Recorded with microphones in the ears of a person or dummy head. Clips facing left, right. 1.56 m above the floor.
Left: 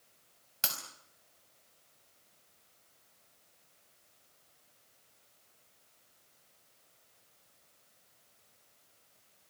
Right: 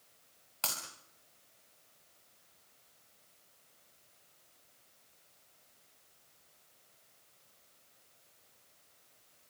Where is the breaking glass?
20° left (ahead or behind), 5 m.